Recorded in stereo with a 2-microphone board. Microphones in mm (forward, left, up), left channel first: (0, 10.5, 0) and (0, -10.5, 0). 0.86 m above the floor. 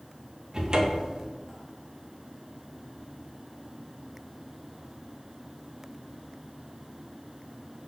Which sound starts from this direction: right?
A cupboard door, at 0.5 s.